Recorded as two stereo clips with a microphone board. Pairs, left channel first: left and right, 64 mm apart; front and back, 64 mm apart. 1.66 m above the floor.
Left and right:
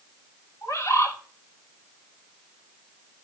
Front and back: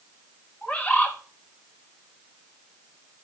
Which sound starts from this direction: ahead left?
A bird, at 0.6 s.